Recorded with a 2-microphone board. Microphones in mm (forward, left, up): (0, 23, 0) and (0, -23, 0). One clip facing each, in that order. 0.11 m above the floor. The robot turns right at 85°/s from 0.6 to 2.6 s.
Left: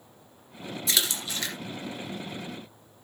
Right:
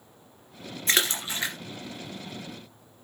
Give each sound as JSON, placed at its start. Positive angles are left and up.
{"t": 0.9, "sound": "a splash", "side_deg": -40, "distance_m": 2.0}